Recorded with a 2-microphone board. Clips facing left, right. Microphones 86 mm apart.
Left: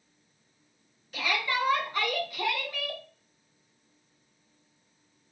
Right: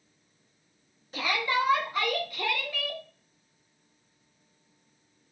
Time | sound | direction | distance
1.1 | a shout | 30° right (ahead or behind) | 1.2 m